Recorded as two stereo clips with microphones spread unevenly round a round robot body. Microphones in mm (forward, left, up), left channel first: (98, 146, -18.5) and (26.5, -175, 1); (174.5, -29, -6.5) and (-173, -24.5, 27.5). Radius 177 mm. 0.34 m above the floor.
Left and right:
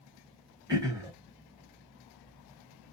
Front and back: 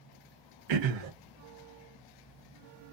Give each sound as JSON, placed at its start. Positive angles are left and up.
{"t": 0.7, "sound": "throat clearing", "azimuth_deg": 175, "distance_m": 0.9}